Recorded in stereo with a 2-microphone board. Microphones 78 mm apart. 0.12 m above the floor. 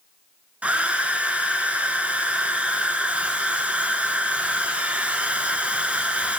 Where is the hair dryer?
15° right (ahead or behind), 0.5 m.